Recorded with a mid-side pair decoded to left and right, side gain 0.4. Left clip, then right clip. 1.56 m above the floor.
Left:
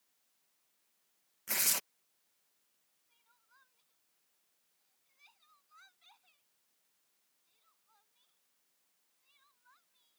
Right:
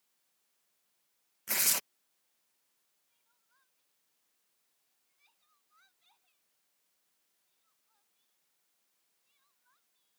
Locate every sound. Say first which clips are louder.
1.5 s tearing paper: right 2 dB; 20° right
3.1 s crying: left 7 dB; 50° left